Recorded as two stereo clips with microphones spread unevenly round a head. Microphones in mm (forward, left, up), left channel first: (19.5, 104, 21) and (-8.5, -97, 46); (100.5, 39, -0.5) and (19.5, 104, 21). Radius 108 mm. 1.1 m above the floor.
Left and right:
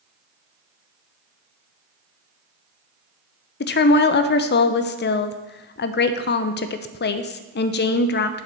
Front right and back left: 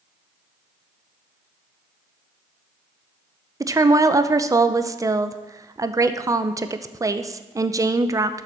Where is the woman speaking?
75° left, 0.5 m.